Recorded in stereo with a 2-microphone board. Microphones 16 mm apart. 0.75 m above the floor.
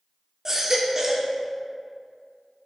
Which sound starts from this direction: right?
A baby crying, at 0.5 s.